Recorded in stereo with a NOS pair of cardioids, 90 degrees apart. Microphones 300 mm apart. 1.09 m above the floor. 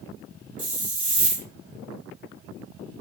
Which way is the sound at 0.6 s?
25° right.